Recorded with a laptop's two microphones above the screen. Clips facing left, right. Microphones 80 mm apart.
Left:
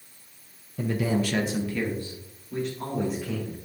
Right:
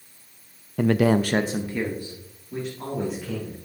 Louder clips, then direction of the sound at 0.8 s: Right 7 dB; 65° right (ahead or behind).